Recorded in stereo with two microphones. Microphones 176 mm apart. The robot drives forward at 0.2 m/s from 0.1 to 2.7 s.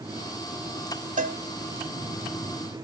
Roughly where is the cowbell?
Right.